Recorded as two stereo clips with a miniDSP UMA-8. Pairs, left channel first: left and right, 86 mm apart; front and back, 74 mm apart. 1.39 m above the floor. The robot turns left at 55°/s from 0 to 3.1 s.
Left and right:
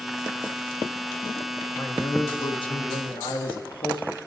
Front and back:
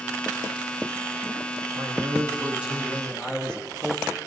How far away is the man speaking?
About 2.5 m.